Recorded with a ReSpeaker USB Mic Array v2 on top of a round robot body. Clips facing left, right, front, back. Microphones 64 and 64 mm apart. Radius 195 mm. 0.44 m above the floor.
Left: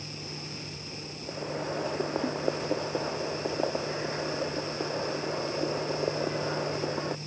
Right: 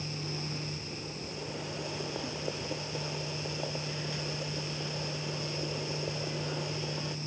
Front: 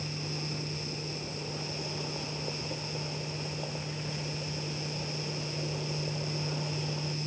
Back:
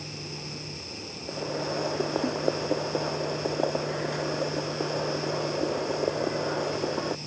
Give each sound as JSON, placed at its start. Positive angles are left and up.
{"t": 1.3, "sound": "boiling", "azimuth_deg": 145}